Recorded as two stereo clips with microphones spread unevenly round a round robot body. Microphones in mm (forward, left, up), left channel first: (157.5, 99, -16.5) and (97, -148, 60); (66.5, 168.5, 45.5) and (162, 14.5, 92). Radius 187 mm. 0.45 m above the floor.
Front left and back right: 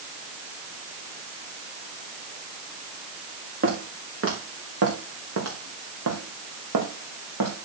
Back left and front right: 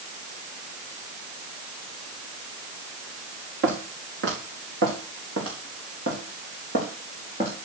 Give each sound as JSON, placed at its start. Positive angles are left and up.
{"t": 3.6, "sound": "footsteps", "azimuth_deg": -70, "distance_m": 4.5}